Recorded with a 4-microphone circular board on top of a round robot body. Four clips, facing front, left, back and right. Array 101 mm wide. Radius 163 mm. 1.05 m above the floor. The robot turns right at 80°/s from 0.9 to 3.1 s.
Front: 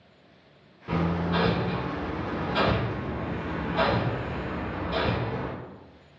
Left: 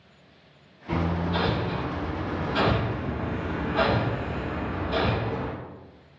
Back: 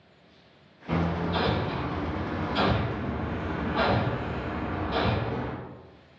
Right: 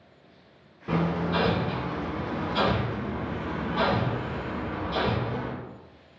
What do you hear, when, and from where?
0.9 s hammering: 75° right, 1.8 m; by 5.5 s 100° left, 1.8 m